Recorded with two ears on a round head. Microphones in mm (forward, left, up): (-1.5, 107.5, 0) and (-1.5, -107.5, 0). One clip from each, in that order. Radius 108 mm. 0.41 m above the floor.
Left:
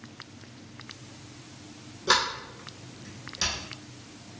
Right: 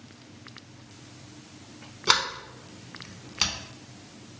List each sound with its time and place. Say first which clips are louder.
2.1 s a sliding door: right 1 dB; 60° right (ahead or behind), 0.6 m